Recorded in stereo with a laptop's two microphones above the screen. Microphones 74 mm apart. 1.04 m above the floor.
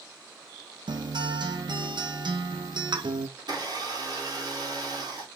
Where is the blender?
60° right (ahead or behind), 2.5 m.